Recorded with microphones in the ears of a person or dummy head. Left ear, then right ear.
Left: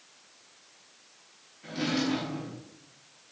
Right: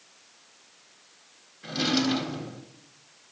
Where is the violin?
I don't hear a violin.